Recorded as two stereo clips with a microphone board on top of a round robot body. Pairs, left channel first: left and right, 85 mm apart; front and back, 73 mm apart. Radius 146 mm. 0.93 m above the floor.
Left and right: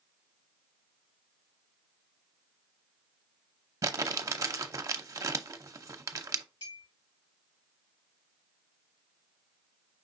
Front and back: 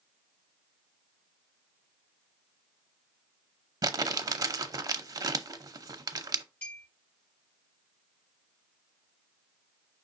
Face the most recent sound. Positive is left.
turn(degrees=70)